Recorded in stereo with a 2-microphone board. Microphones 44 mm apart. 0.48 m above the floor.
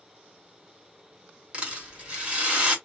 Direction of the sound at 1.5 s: 20° right (ahead or behind).